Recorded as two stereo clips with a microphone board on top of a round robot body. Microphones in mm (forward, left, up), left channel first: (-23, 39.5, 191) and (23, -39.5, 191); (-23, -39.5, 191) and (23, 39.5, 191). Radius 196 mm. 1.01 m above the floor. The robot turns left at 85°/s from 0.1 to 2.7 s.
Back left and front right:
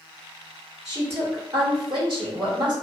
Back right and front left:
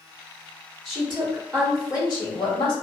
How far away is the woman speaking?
About 1.1 m.